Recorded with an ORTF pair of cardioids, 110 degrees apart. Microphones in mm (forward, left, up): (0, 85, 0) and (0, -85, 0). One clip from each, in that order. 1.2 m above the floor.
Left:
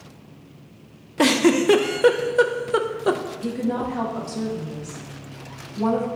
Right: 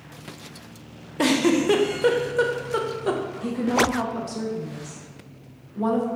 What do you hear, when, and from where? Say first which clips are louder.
1.2 s a giggle: left 3 dB; 20° left, 0.5 m
3.4 s a woman speaking: right 7 dB; straight ahead, 1.3 m